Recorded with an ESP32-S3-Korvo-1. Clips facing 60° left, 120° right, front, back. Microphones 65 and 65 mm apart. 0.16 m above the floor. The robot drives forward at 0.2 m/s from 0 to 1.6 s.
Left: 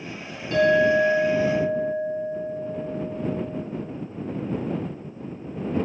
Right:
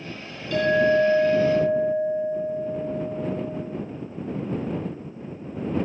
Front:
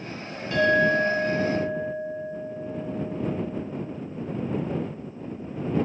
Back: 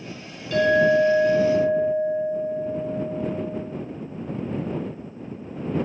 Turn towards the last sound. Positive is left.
turn(degrees=40)